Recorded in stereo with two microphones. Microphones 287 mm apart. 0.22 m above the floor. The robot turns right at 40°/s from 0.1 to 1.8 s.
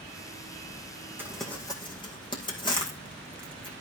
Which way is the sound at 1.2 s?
10° right (ahead or behind).